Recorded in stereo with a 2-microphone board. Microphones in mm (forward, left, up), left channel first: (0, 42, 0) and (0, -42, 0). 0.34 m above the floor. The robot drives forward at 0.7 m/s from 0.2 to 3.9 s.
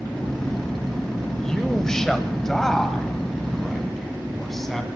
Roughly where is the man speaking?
Centre.